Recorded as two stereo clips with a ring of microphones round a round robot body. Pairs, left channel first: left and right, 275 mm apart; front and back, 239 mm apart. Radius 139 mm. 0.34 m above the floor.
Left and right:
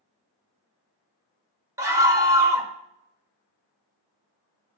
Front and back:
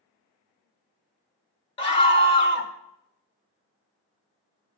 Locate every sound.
1.8 s a scream: 25° right, 0.9 m